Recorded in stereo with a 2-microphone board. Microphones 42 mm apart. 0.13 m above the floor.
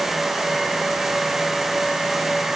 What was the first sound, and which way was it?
Only background noise.